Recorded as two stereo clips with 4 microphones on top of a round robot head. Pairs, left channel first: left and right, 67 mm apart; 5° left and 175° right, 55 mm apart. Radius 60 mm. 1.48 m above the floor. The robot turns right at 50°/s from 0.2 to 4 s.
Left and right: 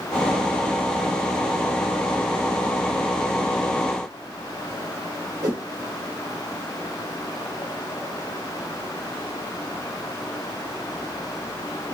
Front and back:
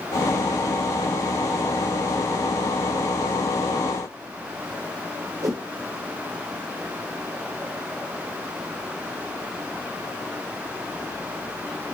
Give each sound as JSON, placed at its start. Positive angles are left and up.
{"t": 5.4, "sound": "a whoosh", "azimuth_deg": -135, "distance_m": 1.7}